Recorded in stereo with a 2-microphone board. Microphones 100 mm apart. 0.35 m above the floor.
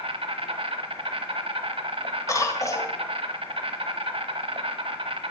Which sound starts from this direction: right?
An insect, at 0.0 s.